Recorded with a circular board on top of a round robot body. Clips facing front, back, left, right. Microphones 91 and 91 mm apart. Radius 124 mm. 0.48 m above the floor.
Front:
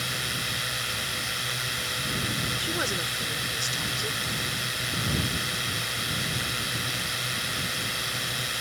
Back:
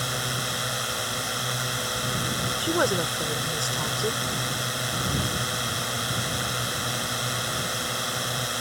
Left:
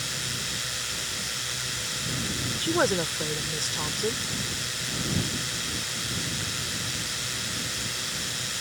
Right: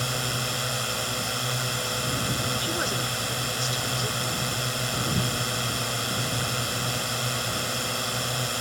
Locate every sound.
0.0 s a drone: 125° right
2.6 s a woman speaking: 135° left